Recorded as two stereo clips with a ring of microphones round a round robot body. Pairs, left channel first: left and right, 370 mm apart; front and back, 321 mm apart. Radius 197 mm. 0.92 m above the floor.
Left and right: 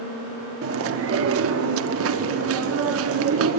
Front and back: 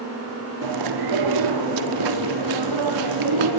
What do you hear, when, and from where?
0.6 s chewing: 145° right, 1.0 m